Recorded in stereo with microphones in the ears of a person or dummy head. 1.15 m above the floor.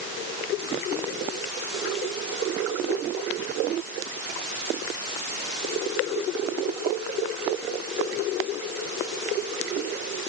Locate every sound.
Only background noise.